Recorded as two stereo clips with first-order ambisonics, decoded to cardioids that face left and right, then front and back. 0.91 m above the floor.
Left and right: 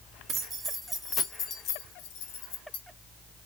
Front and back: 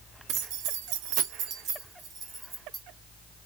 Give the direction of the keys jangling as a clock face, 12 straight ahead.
5 o'clock.